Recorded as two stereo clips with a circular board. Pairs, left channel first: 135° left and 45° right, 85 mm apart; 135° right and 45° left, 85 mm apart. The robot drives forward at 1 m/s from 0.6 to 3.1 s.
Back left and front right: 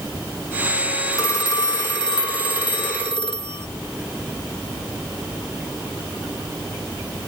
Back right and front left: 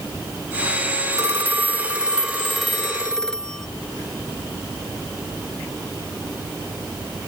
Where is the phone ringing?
95° left; by 3.7 s 140° left.